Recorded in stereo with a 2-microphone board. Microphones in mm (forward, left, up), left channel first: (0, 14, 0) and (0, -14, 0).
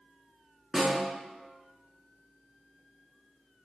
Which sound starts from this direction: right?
A snare drum, at 0.7 s.